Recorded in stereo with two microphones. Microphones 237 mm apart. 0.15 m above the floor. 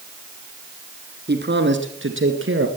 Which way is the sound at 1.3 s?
45° right (ahead or behind).